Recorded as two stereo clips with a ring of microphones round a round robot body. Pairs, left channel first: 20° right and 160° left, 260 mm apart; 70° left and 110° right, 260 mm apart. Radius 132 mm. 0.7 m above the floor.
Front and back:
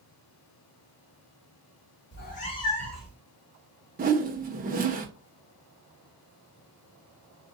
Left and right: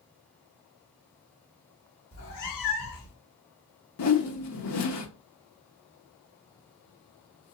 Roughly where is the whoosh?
Left.